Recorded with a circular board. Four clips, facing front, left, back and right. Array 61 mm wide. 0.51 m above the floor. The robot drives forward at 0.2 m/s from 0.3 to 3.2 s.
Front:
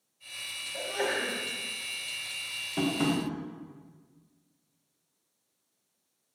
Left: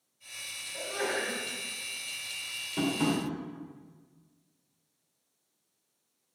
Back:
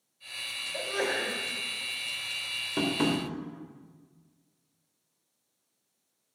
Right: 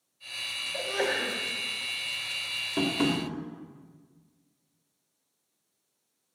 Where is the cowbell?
I don't hear a cowbell.